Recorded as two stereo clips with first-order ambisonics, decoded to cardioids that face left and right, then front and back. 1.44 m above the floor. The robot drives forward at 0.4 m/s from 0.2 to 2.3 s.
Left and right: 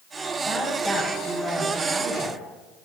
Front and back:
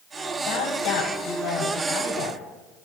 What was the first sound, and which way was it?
A woman speaking, 5° left.